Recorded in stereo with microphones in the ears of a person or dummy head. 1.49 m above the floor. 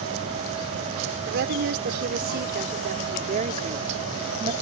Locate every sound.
1.3 s a woman speaking: 60° right (ahead or behind); by 4.5 s 35° right (ahead or behind)